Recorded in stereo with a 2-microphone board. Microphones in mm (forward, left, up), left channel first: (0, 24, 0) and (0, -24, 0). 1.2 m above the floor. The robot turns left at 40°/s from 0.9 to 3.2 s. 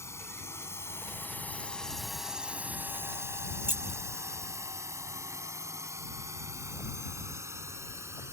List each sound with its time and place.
0.0 s a drone: 70° left (ahead or behind); by 8.3 s 70° right (ahead or behind)
3.6 s keys jangling: 40° right (ahead or behind)